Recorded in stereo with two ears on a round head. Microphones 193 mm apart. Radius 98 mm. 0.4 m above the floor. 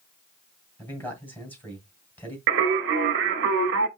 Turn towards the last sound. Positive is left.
turn(degrees=-55)  # may be behind; listen again after turning